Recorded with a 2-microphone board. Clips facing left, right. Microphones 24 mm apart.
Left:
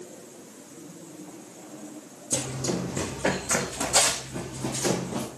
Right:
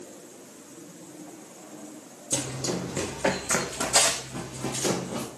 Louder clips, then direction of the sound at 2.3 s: Left 1 dB; 40° right (ahead or behind).